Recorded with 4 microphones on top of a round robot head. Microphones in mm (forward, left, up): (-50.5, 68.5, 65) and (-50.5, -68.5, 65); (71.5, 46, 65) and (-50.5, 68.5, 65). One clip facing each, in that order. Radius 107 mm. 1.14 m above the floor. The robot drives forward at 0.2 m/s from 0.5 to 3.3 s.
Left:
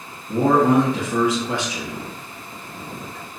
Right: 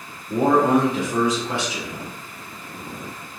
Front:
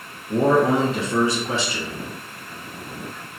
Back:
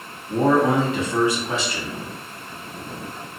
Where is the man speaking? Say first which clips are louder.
Left 1 dB, even; 50° left, 1.9 m; by 2.0 s 60° left, 1.7 m.